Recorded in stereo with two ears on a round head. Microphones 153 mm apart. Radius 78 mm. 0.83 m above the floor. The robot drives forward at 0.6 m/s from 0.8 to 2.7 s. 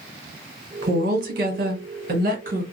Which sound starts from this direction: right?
A woman speaking, at 0.8 s.